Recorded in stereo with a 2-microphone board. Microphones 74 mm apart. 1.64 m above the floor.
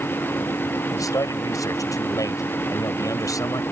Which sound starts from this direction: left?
A man speaking, at 0.9 s.